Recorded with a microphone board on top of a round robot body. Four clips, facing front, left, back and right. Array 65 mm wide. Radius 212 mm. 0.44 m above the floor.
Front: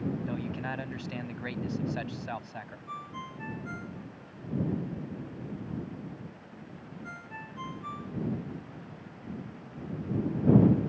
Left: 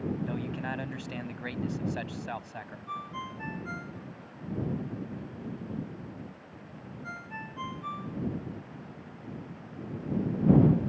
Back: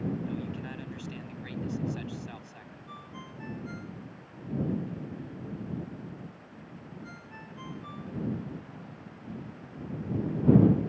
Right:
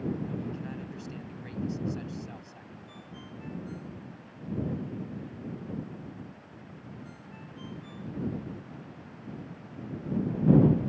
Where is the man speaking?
50° left.